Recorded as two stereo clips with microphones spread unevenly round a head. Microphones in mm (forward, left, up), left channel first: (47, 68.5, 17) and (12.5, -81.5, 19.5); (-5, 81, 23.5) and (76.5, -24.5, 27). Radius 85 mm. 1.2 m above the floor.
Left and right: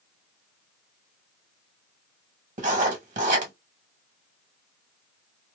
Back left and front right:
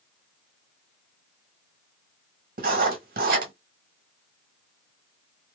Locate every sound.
2.6 s writing: 65° right, 1.3 m